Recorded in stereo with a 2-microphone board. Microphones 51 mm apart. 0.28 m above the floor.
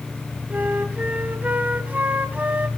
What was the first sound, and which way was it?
A flute, 30° right (ahead or behind).